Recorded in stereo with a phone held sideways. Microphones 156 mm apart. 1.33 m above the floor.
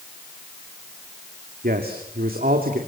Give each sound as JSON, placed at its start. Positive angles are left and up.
{"t": 1.6, "sound": "a man speaking", "side_deg": -80, "distance_m": 2.5}